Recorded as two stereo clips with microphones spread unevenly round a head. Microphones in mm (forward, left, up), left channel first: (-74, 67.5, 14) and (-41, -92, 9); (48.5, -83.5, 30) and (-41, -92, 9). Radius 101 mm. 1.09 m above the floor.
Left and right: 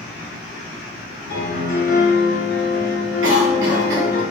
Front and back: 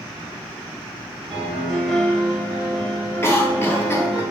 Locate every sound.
1.3 s a piano: 105° left, 0.7 m
3.2 s a cough: 60° right, 0.9 m